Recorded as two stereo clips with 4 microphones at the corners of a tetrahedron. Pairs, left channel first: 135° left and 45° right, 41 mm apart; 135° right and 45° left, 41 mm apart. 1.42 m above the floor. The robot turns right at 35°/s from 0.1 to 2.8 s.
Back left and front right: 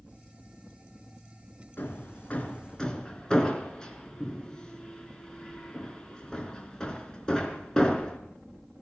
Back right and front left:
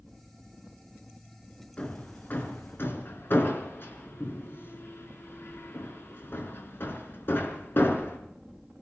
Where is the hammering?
170° left, 4 m; by 8.2 s 155° right, 4 m.